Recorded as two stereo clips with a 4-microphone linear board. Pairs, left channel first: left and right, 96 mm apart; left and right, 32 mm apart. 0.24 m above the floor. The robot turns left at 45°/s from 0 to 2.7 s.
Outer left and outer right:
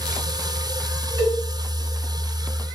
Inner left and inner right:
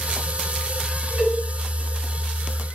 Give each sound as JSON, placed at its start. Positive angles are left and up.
{"t": 1.2, "sound": "a cowbell", "side_deg": -40, "distance_m": 1.7}